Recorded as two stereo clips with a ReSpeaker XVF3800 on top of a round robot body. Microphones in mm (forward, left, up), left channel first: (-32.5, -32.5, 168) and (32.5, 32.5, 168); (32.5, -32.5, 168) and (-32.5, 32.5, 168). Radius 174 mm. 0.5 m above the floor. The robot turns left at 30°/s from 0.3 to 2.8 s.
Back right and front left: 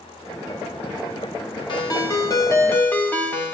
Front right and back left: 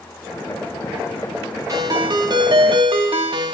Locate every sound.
1.7 s a ringtone: 170° right, 3 m; by 3.5 s 155° left, 3 m